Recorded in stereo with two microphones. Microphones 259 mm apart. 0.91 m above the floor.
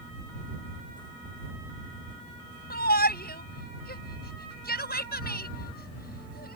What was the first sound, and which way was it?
A shout, 35° left (ahead or behind).